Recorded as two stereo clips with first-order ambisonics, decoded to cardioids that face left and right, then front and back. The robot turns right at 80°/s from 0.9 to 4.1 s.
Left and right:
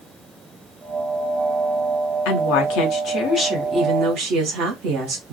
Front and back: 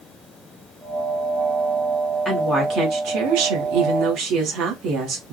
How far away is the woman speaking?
About 1.2 m.